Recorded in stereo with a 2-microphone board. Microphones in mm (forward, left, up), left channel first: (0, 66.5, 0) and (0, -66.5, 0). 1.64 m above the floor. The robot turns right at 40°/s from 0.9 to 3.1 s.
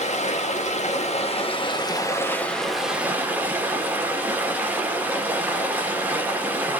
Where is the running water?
105° left, 1.0 m; by 6.8 s 165° right, 1.0 m.